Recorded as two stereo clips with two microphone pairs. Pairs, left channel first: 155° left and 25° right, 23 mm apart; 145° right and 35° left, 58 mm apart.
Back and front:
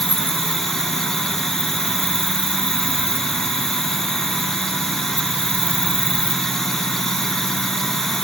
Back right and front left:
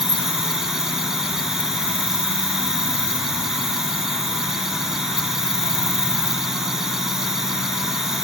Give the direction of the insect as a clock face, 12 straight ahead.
8 o'clock.